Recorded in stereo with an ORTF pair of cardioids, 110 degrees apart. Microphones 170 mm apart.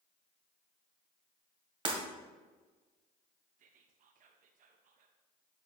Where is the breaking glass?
30° right, 2 m.